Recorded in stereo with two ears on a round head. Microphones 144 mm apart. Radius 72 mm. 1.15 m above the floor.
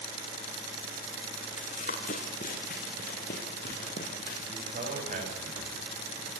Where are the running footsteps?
45° left (ahead or behind), 5 m; by 4.4 s 65° left (ahead or behind), 6.5 m.